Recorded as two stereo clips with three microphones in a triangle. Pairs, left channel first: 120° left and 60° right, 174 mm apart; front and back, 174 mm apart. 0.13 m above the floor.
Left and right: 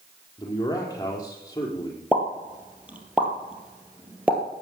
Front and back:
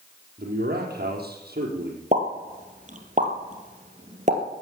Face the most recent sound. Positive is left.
turn(degrees=-140)